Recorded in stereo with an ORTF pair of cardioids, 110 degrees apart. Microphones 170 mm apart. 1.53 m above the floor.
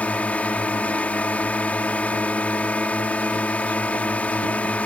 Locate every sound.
0.0 s a drone: 10° left